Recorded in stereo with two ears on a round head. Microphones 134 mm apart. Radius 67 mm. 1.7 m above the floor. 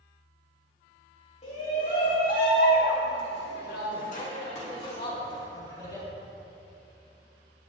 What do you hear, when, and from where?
1.4 s a shout: 50° left (ahead or behind), 3 m; by 6.1 s 25° left (ahead or behind), 4 m